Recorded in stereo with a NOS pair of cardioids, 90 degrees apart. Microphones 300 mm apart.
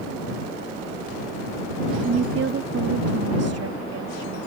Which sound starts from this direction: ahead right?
A woman speaking, at 2.0 s.